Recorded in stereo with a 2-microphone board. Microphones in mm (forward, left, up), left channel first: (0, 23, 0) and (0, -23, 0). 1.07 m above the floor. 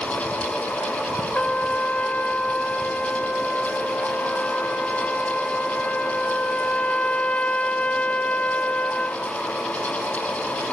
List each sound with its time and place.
1.4 s a trumpet: 25° left (ahead or behind), 0.7 m